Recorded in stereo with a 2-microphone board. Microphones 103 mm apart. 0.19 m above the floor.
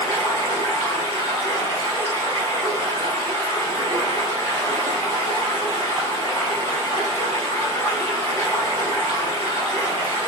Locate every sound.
0.0 s running water: 65° right (ahead or behind), 1.5 m